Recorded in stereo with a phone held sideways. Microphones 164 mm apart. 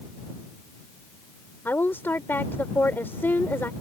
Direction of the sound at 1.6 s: 15° left (ahead or behind).